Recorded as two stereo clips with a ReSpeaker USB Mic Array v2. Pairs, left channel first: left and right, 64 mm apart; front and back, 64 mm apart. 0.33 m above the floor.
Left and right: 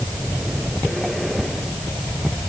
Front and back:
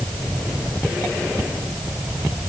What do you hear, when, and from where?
Only background noise.